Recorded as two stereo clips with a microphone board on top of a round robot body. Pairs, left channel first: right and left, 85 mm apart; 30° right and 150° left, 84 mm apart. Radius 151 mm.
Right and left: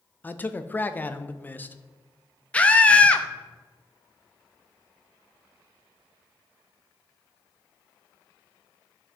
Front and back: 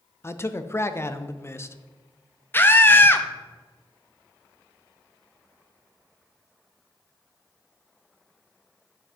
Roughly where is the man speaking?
Ahead right.